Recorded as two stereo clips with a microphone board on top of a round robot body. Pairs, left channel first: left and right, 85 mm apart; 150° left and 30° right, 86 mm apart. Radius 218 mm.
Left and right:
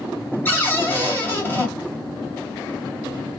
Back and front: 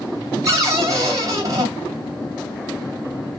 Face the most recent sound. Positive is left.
turn(degrees=25)